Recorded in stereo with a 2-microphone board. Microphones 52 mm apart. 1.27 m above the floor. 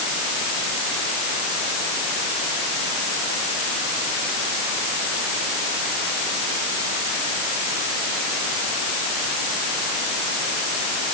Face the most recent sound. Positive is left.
No sound to turn to.